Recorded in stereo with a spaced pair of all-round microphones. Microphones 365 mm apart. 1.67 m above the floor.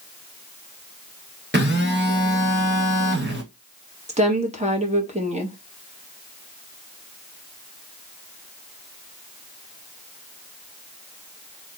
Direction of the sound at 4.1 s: 20° right (ahead or behind).